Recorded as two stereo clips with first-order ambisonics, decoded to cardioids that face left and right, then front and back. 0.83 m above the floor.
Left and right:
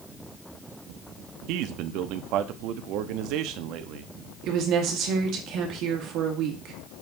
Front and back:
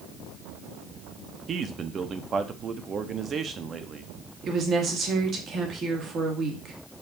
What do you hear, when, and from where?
1.5 s a man speaking: 115° right, 0.8 m
4.4 s a woman speaking: 125° right, 1.9 m